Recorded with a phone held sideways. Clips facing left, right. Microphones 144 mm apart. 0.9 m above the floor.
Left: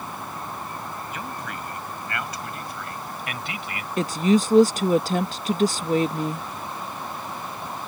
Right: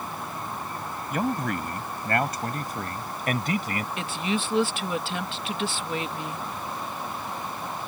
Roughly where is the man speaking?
Right.